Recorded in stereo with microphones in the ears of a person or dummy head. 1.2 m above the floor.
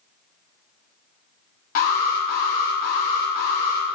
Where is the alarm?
55° left (ahead or behind), 0.8 m.